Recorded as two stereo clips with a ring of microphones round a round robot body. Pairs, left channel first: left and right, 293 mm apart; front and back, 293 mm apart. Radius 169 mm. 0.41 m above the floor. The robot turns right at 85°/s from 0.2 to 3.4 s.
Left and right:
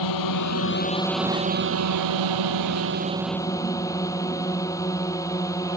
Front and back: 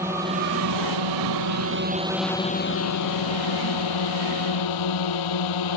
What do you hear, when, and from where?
0.0 s a drone: 95° left; by 5.8 s 10° left